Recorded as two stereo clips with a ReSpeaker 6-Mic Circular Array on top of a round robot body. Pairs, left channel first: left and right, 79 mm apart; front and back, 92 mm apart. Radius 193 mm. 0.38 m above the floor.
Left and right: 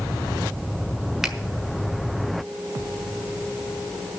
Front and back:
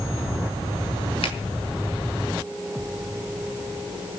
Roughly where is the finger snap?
Ahead.